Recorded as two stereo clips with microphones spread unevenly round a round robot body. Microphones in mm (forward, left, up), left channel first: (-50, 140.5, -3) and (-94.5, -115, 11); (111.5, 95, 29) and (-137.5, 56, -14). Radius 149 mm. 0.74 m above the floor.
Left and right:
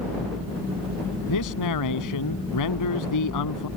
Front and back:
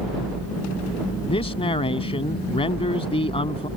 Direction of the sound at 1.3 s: 75° left.